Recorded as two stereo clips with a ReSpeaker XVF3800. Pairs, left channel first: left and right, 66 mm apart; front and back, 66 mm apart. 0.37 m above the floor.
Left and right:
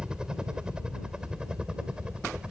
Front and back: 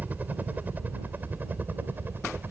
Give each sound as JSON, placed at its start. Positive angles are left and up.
{"t": 0.0, "sound": "a helicopter", "azimuth_deg": -155}